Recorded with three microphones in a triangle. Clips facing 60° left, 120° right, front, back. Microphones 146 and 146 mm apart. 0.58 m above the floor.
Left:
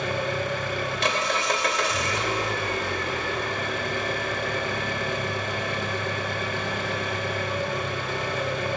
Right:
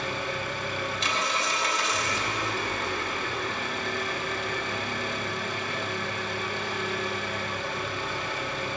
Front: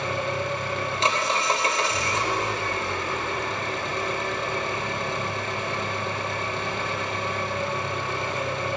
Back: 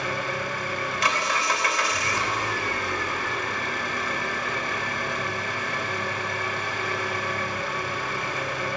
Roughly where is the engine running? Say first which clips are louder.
Left 5 dB, front 2 dB; ahead left.